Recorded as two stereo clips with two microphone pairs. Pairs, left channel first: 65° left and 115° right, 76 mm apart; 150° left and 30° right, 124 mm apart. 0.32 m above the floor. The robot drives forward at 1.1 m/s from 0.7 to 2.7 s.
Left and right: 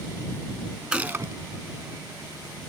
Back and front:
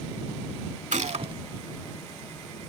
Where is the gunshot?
45° right; by 1.3 s 85° right.